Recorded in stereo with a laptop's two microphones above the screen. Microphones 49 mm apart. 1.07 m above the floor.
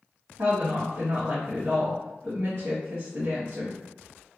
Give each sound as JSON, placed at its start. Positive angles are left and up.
{"t": 0.4, "sound": "a woman speaking", "side_deg": -65, "distance_m": 1.1}